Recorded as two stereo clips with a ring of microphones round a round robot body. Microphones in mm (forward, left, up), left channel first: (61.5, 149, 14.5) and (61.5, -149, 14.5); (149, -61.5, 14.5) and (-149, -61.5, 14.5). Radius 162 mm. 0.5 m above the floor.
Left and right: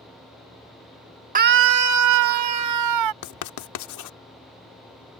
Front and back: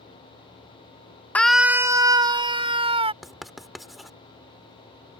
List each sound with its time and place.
1.4 s a scream: 80° right; by 3.1 s 110° right
3.2 s writing: 90° left